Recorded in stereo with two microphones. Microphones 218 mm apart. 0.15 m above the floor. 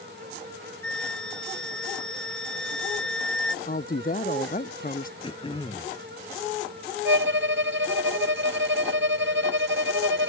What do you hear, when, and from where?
0.8 s a flute: 75° left (ahead or behind)
3.6 s a woman speaking: 40° left (ahead or behind)
5.2 s throat clearing: 25° left (ahead or behind)
7.0 s a violin: 60° right (ahead or behind)